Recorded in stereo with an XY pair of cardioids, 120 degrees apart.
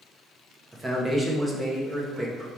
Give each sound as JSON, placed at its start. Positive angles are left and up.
{"t": 0.7, "sound": "a man speaking", "azimuth_deg": -15, "distance_m": 1.1}